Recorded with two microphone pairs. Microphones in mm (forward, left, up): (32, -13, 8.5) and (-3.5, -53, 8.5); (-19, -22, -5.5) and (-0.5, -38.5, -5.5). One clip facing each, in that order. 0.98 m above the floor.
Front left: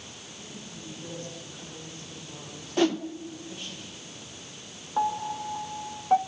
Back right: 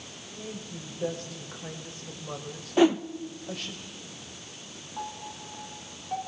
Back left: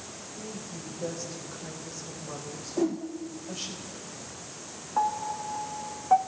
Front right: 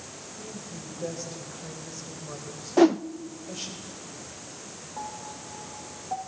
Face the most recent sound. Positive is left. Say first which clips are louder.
# front left 11 dB, back left 11 dB
turn(degrees=95)